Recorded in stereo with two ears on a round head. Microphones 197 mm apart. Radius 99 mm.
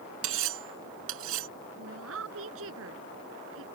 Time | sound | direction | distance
0.2 | cutlery clinking | 70° right (ahead or behind) | ?
1.8 | a woman speaking | 65° right (ahead or behind) | ?